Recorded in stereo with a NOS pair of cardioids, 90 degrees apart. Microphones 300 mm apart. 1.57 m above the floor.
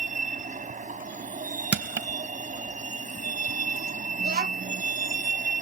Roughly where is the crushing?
Ahead right.